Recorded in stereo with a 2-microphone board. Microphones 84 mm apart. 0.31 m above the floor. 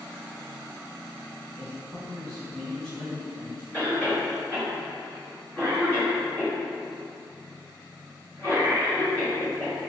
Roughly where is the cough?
Left.